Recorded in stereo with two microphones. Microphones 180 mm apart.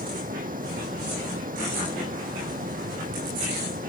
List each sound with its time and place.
0.0 s running water: 50° right (ahead or behind)